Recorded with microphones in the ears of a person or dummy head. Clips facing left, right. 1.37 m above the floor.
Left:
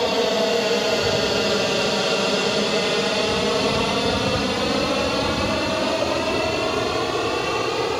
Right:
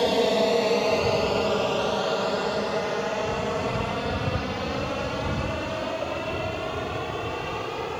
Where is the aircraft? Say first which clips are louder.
Left 1 dB; centre (ahead or behind); by 8.0 s 70° left (ahead or behind).